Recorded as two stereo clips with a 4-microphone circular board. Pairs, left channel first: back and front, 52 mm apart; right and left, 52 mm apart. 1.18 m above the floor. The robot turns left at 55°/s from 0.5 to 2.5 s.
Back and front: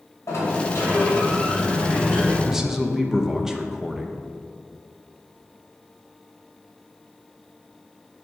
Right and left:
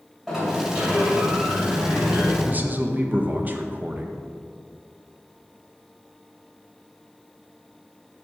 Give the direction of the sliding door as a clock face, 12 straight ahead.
6 o'clock.